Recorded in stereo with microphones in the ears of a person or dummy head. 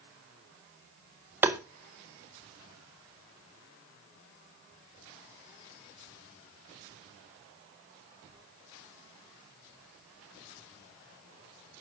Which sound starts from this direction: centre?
Tapping, at 1.4 s.